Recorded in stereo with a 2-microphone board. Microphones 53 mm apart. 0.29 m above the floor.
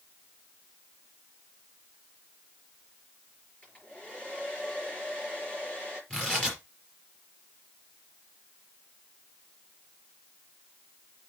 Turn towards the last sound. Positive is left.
turn(degrees=20)  # may be behind; listen again after turning